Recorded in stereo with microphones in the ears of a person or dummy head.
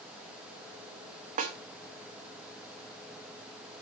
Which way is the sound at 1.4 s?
30° right (ahead or behind).